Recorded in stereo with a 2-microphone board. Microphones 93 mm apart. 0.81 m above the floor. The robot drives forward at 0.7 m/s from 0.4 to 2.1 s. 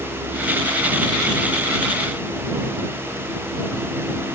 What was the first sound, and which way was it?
Only background noise.